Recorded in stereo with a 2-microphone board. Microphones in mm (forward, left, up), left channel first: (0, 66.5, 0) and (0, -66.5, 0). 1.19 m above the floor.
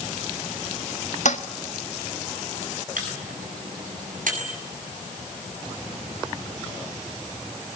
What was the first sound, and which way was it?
A toilet flushing, 65° left (ahead or behind).